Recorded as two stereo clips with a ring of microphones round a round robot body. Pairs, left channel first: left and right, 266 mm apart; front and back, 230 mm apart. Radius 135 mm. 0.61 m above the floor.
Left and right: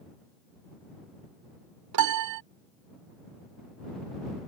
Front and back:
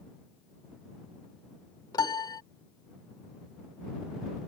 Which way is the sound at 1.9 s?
75° right.